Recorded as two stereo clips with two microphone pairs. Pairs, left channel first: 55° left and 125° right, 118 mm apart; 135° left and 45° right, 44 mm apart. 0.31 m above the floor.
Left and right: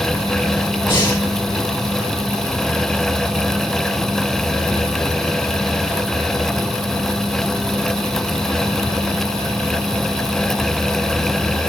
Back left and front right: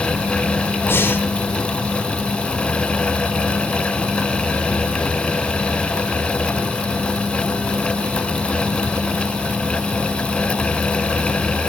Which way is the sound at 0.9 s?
105° left.